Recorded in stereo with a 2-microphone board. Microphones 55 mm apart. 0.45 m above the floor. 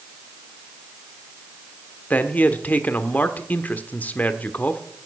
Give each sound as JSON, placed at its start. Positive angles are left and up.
{"t": 2.1, "sound": "a man speaking", "side_deg": 30, "distance_m": 1.1}